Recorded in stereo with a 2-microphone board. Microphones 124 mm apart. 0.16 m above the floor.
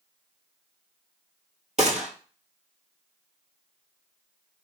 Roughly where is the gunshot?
Right.